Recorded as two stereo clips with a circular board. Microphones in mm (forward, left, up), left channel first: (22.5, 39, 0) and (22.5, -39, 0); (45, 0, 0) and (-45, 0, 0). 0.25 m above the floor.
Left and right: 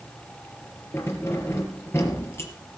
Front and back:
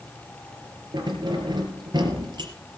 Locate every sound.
0.9 s keys jangling: 145° left, 4 m